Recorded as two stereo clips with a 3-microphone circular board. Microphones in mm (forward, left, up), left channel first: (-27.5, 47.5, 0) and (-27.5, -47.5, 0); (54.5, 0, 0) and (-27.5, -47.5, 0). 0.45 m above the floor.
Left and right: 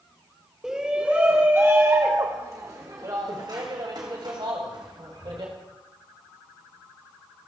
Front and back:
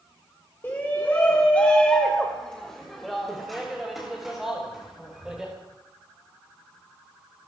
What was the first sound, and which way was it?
A shout, 15° right.